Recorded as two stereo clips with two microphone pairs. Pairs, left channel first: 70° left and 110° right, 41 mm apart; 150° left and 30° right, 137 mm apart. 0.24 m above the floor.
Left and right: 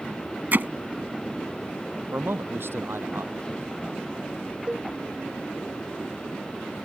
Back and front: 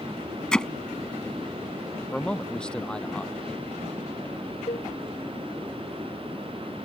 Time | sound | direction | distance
0.5 | hammering | 125° right | ?
2.1 | a man speaking | 125° right | ?
4.7 | a cowbell | 170° right | ?